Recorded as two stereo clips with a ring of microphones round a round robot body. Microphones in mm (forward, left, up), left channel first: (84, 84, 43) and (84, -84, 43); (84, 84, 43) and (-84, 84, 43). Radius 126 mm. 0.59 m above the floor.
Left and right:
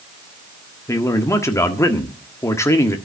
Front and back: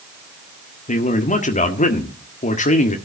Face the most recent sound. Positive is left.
turn(degrees=20)